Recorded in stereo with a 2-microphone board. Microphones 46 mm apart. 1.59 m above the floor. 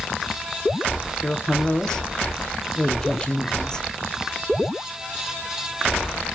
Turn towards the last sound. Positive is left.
turn(degrees=15)  # may be behind; listen again after turning